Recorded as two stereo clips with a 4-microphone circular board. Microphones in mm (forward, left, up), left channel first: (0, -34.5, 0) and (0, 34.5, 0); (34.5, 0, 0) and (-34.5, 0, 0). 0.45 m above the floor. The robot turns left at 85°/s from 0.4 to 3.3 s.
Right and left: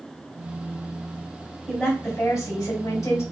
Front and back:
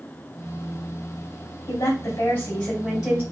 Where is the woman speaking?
10° left, 2.5 m; by 3.2 s 120° right, 2.5 m.